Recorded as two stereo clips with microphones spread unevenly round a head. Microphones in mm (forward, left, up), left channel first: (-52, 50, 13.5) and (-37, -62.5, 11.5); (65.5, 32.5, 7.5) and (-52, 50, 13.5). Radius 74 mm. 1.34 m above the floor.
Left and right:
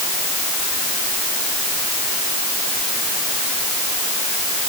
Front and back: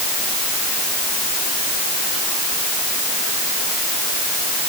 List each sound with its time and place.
Only background noise.